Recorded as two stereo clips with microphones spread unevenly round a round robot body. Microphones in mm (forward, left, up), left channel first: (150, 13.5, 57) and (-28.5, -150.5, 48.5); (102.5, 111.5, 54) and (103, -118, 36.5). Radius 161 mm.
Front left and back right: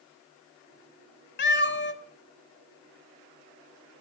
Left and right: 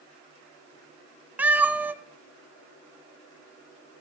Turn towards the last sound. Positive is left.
turn(degrees=-5)